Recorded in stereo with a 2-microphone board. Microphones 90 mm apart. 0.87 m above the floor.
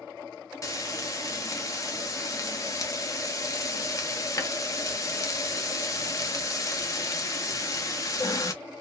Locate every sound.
0.6 s frying: 40° left (ahead or behind), 0.6 m